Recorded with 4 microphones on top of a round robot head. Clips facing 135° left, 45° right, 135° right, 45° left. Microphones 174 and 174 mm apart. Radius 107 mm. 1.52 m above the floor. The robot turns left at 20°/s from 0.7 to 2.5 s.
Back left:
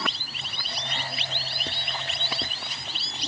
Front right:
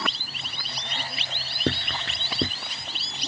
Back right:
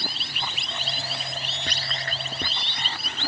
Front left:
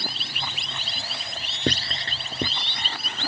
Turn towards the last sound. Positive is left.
turn(degrees=-30)